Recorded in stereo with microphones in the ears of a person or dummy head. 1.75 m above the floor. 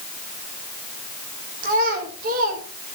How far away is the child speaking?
About 3.5 m.